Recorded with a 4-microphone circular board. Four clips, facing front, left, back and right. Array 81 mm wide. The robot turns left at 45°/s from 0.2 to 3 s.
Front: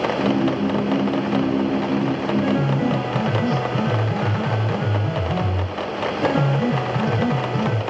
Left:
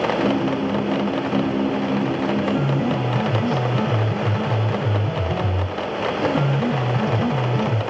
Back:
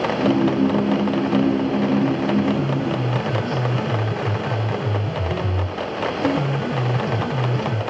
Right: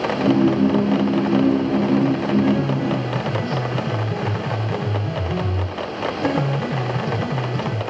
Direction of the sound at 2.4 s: 55° left.